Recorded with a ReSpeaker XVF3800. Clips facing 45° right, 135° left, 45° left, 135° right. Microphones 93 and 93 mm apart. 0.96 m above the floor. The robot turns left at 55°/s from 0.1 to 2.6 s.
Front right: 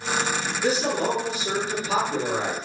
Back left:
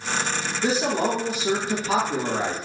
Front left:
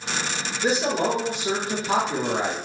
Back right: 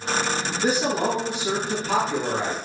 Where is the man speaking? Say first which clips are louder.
Back left 1 dB, front left 1 dB; 170° right, 1.4 m; by 2.5 s 85° left, 1.4 m.